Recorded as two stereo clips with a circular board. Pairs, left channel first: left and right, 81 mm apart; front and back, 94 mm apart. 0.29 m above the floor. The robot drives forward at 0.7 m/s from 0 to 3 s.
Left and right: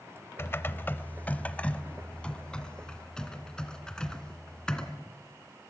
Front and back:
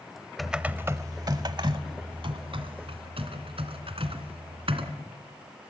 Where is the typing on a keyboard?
90° left, 0.7 m; by 4.9 s 170° left, 1.9 m.